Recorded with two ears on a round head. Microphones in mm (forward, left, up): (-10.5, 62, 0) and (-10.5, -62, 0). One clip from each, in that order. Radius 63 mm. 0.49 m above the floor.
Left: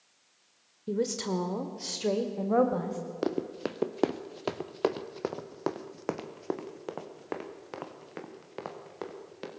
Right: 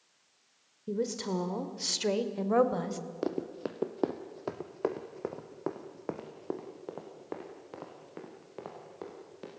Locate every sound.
0.9 s a woman speaking: 20° left (ahead or behind), 1.3 m; by 3.0 s 60° right (ahead or behind), 2 m
3.2 s running footsteps: 15° left (ahead or behind), 1.0 m; by 9.5 s 50° left (ahead or behind), 4 m